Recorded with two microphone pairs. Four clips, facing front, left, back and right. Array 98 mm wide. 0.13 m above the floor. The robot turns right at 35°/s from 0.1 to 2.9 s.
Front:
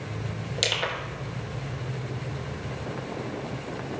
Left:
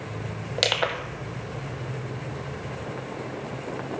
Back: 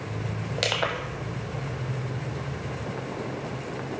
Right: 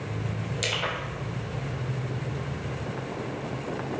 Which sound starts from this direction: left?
Crushing, at 0.6 s.